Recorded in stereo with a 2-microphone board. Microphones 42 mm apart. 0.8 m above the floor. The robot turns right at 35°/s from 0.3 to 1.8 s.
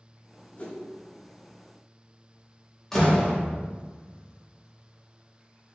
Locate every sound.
0.6 s a whoosh: 35° left (ahead or behind), 0.9 m
2.9 s a door slam: 5° left (ahead or behind), 1.1 m